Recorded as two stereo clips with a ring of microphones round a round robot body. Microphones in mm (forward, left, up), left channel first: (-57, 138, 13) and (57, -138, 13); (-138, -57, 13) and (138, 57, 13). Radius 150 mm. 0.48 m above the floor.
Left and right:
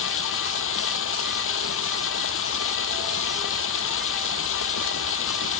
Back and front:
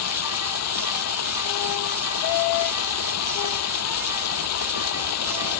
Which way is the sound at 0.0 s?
160° left.